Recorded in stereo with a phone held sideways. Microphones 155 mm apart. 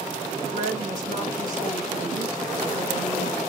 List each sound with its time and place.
0.5 s a woman speaking: 60° right (ahead or behind), 6 m